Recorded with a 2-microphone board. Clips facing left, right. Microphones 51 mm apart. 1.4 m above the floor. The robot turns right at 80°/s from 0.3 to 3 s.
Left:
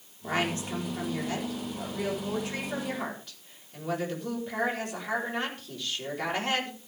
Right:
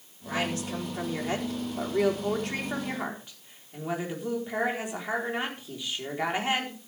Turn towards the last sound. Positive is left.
turn(degrees=-15)